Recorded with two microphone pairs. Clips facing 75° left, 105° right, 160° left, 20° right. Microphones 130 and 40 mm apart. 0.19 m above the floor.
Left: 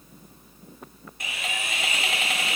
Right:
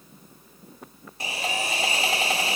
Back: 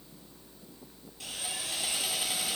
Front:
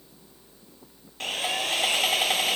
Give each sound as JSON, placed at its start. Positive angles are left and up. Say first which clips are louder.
{"t": 1.2, "sound": "sawing", "louder": "right 5 dB, front 11 dB", "azimuth_deg": -45, "distance_m": 0.6}